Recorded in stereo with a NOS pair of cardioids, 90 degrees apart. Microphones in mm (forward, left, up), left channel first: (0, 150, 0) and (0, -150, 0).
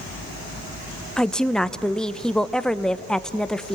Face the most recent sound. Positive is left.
turn(degrees=0)